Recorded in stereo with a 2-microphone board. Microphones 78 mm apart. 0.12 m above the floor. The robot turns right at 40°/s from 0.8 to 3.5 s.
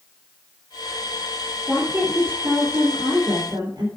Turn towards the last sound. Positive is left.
turn(degrees=-95)